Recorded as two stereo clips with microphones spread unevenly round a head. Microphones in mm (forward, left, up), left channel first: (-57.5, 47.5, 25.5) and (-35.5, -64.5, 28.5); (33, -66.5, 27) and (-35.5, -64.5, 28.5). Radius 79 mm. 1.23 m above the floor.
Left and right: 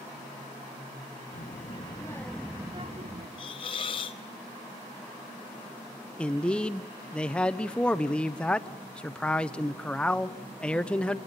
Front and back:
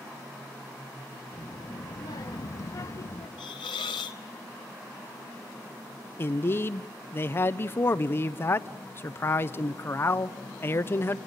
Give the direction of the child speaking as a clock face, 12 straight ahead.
10 o'clock.